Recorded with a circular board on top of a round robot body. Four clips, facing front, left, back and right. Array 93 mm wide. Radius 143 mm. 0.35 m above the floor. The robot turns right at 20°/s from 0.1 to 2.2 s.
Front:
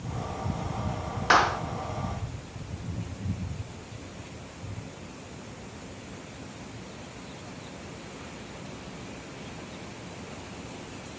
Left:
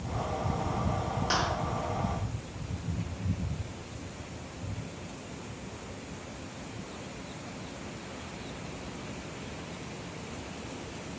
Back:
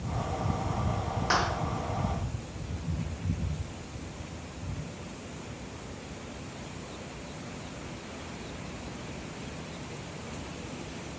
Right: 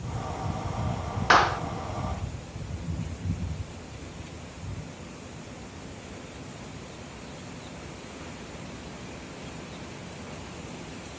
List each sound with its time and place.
1.3 s a clap: 55° right, 1.0 m; by 1.6 s 50° right, 1.0 m